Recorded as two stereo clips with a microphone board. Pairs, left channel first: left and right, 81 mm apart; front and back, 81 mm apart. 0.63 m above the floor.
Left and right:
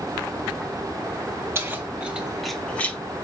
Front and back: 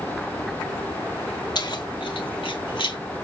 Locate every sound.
1.6 s keys jangling: 30° right, 2.5 m; by 3.0 s 25° left, 1.8 m